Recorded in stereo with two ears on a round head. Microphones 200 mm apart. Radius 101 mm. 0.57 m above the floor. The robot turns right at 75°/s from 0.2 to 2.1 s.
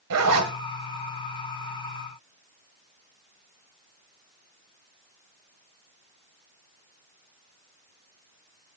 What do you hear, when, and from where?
0.1 s a zipper: 85° right, 1.4 m; by 0.5 s 70° right (ahead or behind), 1.4 m